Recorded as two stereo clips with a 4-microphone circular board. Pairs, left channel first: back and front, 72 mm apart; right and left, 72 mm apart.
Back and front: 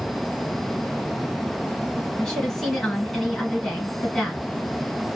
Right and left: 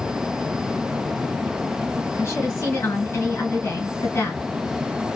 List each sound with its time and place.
2.2 s a woman speaking: 95° right, 1.6 m